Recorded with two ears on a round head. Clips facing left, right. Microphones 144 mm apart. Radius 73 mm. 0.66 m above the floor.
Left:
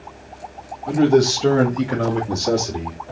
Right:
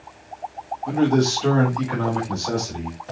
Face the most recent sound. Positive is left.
turn(degrees=60)  # may be behind; listen again after turning